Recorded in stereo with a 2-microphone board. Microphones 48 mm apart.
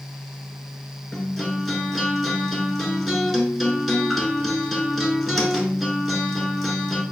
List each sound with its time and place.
1.1 s a guitar: 5° right (ahead or behind), 1.0 m